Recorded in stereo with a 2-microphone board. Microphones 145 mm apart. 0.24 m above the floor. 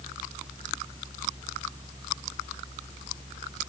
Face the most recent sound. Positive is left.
No sound to turn to.